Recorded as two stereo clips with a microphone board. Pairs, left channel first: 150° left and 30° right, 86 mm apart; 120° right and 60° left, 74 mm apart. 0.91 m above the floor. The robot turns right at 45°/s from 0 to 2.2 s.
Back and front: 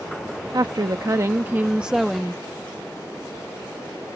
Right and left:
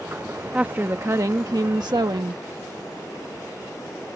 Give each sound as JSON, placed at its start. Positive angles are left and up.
{"t": 0.5, "sound": "a woman speaking", "azimuth_deg": -10}